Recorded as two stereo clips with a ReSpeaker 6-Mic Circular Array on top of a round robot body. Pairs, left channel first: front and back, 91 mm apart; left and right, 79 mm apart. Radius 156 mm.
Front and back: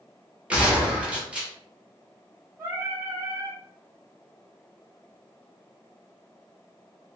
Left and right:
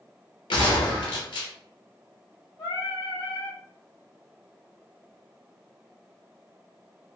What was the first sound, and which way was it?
A gunshot, 100° left.